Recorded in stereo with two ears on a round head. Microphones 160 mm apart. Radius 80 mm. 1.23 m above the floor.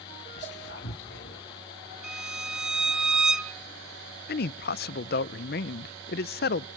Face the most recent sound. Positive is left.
turn(degrees=55)  # may be behind; listen again after turning